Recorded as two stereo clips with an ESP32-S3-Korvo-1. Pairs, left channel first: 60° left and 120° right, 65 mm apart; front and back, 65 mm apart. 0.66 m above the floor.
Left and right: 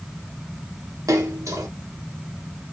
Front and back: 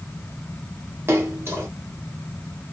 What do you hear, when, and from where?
1.1 s a splash: 135° right, 1.5 m